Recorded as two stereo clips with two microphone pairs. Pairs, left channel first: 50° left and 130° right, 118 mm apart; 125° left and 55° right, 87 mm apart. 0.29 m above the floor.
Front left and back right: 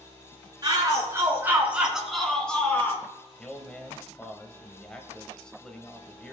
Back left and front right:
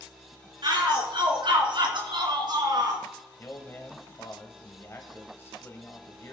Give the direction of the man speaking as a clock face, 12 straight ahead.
8 o'clock.